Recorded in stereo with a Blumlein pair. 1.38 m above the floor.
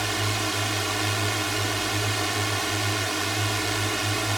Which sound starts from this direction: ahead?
A drone, at 0.0 s.